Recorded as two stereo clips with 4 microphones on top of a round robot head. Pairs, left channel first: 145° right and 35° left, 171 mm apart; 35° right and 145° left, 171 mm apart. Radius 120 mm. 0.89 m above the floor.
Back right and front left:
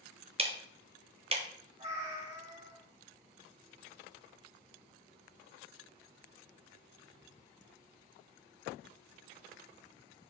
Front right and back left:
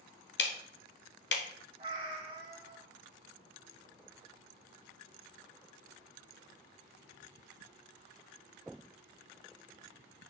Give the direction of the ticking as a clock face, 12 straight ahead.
1 o'clock.